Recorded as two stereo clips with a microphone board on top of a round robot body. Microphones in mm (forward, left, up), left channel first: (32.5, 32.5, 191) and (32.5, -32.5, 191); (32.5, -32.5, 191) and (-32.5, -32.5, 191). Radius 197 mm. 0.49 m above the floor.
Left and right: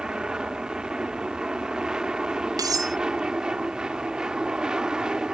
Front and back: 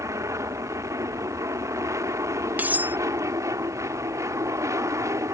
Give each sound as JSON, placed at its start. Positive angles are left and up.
{"t": 0.0, "sound": "an aircraft", "azimuth_deg": -165}
{"t": 2.6, "sound": "cutlery clinking", "azimuth_deg": -115}